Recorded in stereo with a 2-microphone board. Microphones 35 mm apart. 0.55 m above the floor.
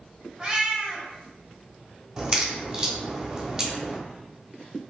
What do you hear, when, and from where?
0.4 s a cat meowing: 20° right (ahead or behind), 1.2 m
2.2 s a crack: 25° right (ahead or behind), 0.8 m